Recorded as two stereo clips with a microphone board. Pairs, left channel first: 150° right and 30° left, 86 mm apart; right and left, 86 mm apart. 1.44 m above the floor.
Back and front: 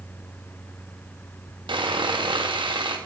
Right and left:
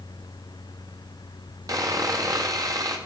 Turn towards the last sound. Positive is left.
turn(degrees=45)